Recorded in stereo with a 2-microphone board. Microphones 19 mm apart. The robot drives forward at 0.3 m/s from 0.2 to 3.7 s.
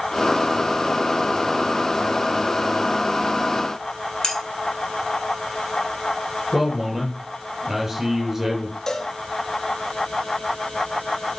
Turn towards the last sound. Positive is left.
turn(degrees=35)  # may be behind; listen again after turning